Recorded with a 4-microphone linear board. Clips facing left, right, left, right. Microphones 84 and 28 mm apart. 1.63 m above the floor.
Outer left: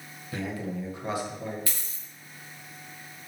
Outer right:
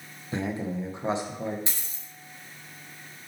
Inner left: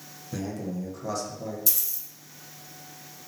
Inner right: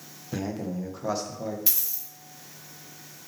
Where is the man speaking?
25° right (ahead or behind), 1.5 m.